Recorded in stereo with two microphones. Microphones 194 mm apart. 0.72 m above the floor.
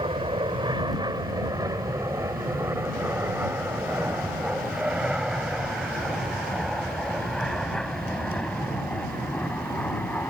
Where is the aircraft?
25° right (ahead or behind); by 10.3 s 10° left (ahead or behind).